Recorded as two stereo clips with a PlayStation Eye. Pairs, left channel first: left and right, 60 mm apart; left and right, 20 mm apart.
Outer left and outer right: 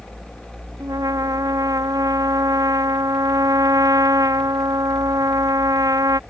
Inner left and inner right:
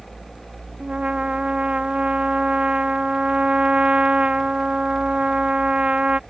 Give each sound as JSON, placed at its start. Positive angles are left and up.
{"t": 0.8, "sound": "a trumpet", "side_deg": -80}